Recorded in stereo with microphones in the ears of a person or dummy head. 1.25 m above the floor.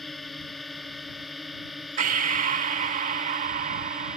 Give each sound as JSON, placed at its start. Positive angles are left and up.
{"t": 0.0, "sound": "a drone", "side_deg": -5}
{"t": 2.0, "sound": "breathing", "side_deg": -35}